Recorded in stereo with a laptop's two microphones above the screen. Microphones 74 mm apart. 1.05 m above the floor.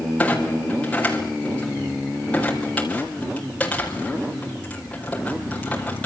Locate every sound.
0.2 s a clunk: 20° left (ahead or behind), 4 m